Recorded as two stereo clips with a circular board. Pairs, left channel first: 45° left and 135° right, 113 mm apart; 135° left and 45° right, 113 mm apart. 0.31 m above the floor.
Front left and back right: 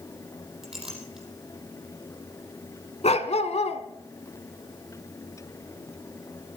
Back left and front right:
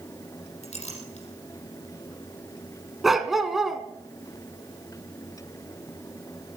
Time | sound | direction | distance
0.6 | a clink | 140° left | 5.5 m
3.0 | a dog barking | 45° left | 1.3 m